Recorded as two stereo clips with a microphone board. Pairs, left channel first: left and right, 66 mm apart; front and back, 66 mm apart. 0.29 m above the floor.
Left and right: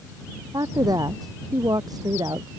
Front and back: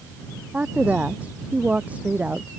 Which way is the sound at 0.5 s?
110° right.